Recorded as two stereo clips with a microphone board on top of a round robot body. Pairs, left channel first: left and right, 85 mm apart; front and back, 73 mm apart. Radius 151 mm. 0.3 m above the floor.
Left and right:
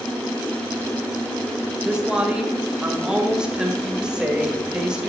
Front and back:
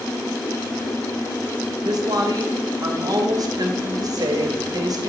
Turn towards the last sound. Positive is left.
turn(degrees=-170)